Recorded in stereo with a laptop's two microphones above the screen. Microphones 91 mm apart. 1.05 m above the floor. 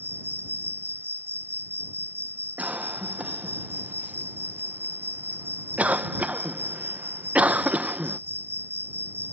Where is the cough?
15° right (ahead or behind).